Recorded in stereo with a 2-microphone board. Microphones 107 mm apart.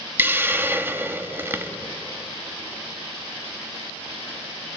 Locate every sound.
0.2 s a hiss: 20° right (ahead or behind), 1.3 m